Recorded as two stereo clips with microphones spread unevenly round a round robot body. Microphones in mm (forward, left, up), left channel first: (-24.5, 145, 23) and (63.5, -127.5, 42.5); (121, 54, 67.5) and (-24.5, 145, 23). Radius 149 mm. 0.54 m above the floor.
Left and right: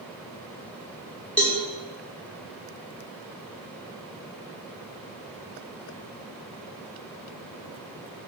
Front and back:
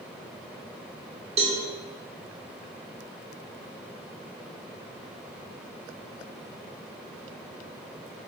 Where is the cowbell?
170° right, 0.7 m.